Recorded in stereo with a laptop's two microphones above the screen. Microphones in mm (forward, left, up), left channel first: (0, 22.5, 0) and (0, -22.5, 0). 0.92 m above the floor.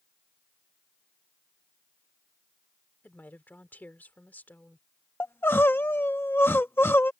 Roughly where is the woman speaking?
Left.